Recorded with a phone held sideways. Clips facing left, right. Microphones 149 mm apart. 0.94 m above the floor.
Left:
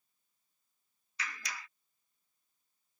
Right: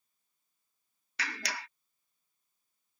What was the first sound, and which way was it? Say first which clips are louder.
A clap: right 5 dB; 70° right (ahead or behind).